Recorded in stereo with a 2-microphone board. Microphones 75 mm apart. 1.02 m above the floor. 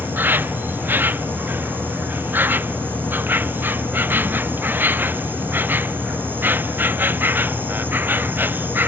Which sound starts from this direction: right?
An insect, at 0.0 s.